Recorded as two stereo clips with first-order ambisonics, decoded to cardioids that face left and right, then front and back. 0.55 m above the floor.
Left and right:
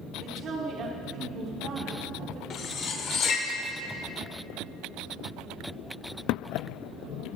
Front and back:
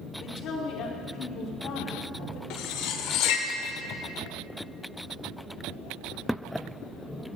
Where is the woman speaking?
40° right, 1.0 m.